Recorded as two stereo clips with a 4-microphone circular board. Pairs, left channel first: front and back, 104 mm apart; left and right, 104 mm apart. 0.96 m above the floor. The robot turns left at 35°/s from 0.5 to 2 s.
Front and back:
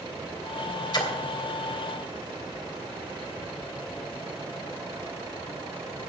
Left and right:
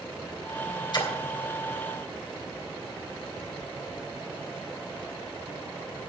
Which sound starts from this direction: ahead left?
A splash, at 0.9 s.